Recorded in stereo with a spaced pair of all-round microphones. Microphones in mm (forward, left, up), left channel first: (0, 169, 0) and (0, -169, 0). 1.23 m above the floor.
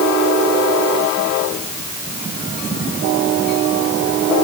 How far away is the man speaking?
No man speaking in this recording.